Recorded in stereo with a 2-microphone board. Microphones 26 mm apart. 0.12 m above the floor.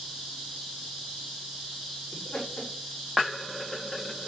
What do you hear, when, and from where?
2.1 s laughter: 40° left (ahead or behind), 7.5 m